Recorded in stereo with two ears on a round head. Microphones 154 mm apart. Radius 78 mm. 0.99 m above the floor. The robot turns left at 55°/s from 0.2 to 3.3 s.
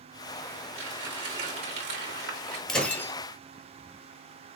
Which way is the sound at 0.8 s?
10° right.